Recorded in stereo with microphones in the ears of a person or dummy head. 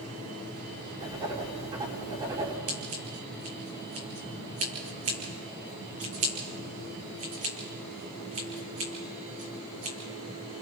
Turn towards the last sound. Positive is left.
turn(degrees=-35)  # may be behind; listen again after turning